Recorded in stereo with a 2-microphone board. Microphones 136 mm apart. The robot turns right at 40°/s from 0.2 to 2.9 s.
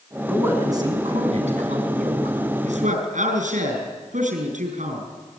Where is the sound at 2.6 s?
65° right (ahead or behind), 6 m; by 5.0 s 75° right (ahead or behind), 6 m.